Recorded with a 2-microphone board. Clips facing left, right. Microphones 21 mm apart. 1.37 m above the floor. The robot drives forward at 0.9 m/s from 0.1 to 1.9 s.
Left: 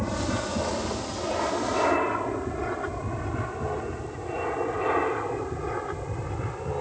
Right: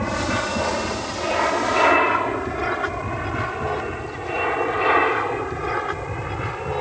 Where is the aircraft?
55° right (ahead or behind).